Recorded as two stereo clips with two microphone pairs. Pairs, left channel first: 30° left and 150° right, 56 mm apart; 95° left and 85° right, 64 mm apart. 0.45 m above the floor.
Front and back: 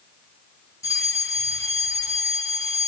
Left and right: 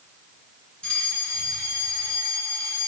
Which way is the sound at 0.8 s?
25° left.